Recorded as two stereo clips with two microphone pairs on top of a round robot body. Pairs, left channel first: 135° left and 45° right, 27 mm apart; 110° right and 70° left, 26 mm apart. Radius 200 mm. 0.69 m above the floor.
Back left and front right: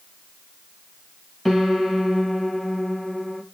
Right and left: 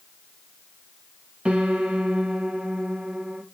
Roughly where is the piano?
Ahead left.